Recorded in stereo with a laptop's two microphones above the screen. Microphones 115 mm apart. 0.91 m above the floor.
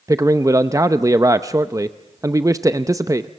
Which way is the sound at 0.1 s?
30° right (ahead or behind).